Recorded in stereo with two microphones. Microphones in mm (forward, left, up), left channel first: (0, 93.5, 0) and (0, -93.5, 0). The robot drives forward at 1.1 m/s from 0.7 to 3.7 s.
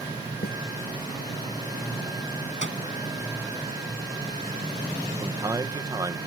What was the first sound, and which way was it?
A snare drum, 55° left (ahead or behind).